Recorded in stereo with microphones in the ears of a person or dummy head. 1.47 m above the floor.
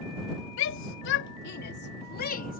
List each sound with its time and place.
0.6 s a shout: 70° left (ahead or behind); by 2.6 s 45° left (ahead or behind)